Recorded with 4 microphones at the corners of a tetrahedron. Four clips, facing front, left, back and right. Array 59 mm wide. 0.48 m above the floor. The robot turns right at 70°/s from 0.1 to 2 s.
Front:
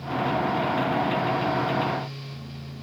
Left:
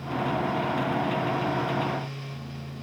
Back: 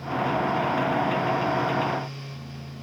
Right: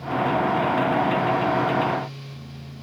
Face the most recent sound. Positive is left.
No sound to turn to.